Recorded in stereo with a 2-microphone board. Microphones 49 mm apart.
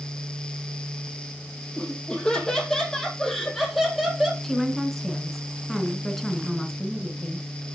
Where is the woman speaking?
5° left (ahead or behind), 1.6 m.